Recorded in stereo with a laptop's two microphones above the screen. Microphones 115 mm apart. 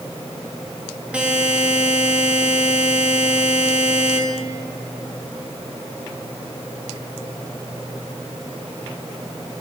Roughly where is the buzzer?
Centre.